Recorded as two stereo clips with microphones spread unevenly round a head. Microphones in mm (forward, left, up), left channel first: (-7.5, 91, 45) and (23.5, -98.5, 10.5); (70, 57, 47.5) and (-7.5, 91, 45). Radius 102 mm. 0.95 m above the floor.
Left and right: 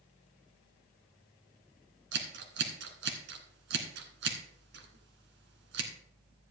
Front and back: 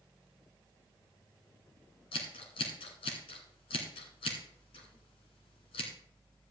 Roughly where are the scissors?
Ahead right.